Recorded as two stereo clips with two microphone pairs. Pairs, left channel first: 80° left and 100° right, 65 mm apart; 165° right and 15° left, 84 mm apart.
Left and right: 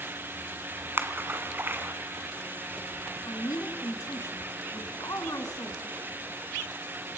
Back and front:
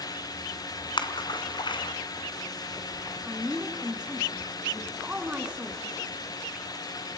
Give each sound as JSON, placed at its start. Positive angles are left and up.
{"t": 1.0, "sound": "a splash", "azimuth_deg": -155, "distance_m": 1.6}
{"t": 3.2, "sound": "a woman speaking", "azimuth_deg": 90, "distance_m": 3.0}